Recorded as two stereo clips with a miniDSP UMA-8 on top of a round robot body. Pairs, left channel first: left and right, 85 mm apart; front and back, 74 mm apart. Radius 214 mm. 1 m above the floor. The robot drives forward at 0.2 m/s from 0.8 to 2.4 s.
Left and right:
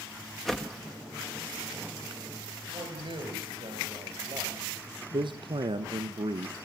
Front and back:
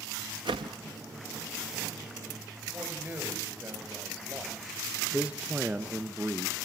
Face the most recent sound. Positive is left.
turn(degrees=-110)